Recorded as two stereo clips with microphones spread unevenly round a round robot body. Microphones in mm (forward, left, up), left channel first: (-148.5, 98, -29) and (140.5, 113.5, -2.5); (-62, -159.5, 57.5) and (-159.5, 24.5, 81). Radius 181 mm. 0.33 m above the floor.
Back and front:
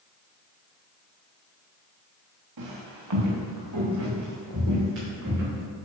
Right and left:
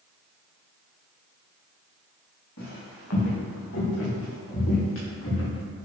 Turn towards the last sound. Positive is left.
turn(degrees=-60)